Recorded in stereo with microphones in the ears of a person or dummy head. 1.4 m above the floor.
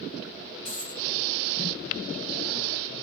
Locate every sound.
0.7 s a dropped coin: 35° left (ahead or behind), 1.4 m